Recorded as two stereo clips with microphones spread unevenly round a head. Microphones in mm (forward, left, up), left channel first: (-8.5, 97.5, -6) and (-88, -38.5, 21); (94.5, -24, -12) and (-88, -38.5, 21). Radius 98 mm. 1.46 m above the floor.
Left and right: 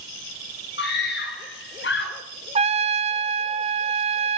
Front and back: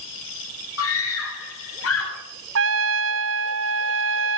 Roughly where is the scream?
Ahead.